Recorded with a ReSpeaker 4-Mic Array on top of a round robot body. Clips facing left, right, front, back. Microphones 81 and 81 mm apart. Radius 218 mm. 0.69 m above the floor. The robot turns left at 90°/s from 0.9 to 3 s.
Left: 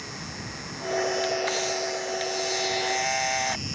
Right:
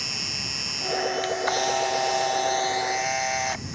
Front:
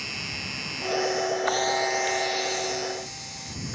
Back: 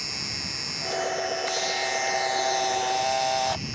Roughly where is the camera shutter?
Ahead right.